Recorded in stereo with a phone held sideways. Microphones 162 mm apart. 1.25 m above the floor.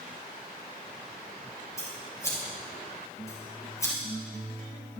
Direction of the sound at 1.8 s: 20° left (ahead or behind).